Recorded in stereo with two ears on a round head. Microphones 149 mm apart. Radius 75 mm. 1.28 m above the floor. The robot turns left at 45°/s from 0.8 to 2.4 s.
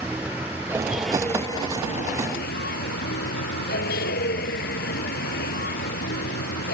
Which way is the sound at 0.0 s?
170° right.